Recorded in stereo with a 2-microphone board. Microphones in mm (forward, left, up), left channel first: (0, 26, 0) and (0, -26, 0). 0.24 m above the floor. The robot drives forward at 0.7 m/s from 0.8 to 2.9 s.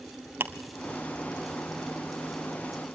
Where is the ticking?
40° right (ahead or behind), 1.5 m.